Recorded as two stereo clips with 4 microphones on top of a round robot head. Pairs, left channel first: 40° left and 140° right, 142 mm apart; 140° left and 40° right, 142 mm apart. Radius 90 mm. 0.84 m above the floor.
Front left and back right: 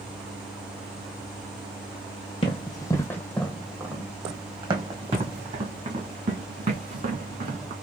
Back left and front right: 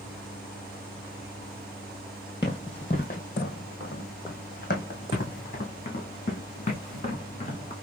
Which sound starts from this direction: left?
Running footsteps, at 2.4 s.